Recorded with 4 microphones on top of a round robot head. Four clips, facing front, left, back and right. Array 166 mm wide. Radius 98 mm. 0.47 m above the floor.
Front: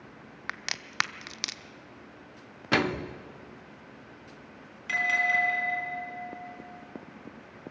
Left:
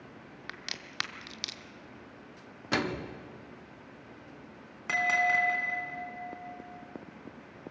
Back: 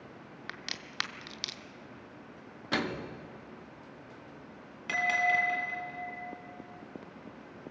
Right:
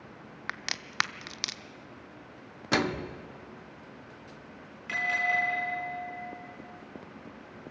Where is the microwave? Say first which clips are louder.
Right 3 dB, front 6 dB; 25° right, 0.8 m.